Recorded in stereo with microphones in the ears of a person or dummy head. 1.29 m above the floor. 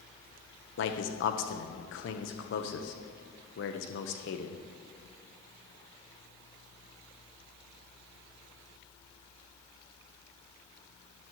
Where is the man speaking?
60° left (ahead or behind), 1.0 m.